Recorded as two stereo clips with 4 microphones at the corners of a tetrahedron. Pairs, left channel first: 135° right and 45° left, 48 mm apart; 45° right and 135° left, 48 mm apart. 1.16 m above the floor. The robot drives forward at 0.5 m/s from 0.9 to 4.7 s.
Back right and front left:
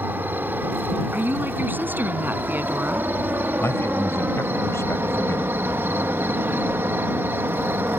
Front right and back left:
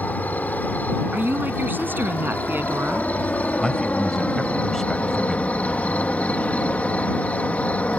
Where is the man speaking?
125° right; by 5.6 s 130° right.